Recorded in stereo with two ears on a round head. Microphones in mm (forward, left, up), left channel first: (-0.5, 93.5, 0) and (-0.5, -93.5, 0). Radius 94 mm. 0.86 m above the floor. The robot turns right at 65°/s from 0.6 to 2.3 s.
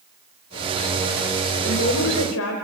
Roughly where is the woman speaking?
Ahead left.